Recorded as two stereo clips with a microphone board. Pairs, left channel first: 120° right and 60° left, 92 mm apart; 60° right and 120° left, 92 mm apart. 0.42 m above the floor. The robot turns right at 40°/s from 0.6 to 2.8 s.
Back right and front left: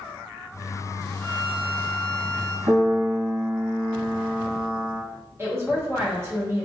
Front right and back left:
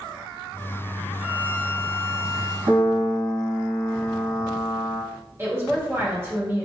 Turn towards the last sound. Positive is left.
turn(degrees=90)